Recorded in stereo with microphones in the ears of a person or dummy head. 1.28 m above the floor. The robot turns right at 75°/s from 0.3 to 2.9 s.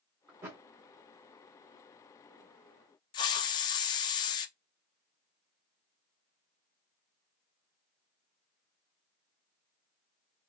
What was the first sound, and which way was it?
A thud, 5° right (ahead or behind).